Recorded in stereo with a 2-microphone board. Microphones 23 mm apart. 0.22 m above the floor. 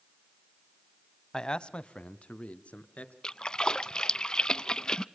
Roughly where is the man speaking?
Left.